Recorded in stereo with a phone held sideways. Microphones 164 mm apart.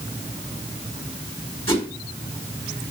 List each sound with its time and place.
1.7 s a whoosh: 35° left (ahead or behind), 4 m